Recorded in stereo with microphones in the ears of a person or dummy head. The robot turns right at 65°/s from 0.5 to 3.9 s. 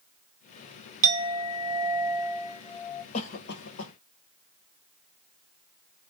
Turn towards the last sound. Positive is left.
turn(degrees=85)